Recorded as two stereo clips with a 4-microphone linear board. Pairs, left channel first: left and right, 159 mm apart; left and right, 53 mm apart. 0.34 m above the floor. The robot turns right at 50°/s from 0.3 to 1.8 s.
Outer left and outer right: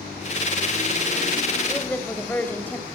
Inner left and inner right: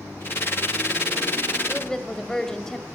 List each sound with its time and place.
1.7 s a woman speaking: 5° left (ahead or behind), 1.5 m; by 2.9 s 10° left (ahead or behind), 1.5 m